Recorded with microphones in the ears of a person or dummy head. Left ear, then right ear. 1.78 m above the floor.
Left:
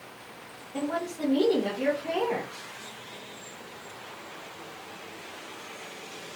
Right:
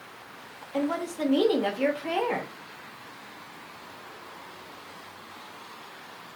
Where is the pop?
I don't hear a pop.